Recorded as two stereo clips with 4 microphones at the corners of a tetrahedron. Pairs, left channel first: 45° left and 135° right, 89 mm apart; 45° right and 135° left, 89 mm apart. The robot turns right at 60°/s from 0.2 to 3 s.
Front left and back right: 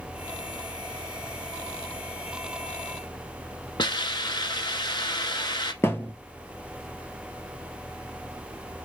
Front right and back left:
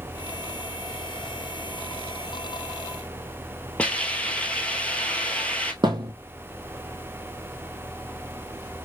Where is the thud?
105° left, 0.7 m.